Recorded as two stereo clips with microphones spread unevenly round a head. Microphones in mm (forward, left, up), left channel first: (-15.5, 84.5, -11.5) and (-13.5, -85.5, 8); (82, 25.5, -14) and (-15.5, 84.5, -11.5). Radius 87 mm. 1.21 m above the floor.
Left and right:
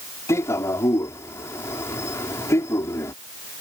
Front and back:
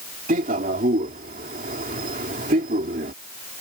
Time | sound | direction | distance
0.3 | a man speaking | 165° left | ?